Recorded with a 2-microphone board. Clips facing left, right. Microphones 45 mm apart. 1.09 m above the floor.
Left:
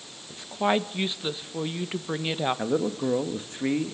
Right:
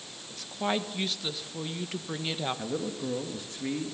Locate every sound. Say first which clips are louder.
0.3 s a woman speaking: left 6 dB; 20° left (ahead or behind), 1.2 m
2.6 s a man speaking: left 7 dB; 35° left (ahead or behind), 1.8 m